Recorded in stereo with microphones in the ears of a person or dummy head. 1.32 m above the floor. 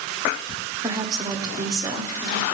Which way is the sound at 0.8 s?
15° right (ahead or behind).